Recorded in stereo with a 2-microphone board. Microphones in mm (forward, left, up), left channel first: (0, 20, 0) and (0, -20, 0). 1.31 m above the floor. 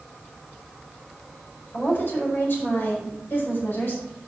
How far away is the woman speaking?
About 4.5 m.